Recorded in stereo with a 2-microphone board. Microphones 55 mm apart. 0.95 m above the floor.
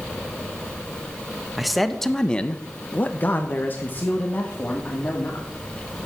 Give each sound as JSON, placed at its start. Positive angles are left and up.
{"t": 1.6, "sound": "a man speaking", "side_deg": 0, "distance_m": 1.3}